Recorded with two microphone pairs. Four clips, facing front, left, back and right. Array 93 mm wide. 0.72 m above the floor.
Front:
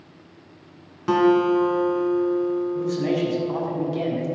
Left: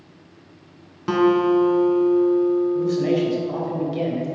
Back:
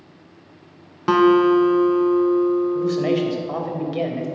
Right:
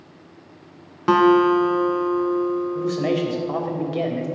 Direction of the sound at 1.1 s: 130° right.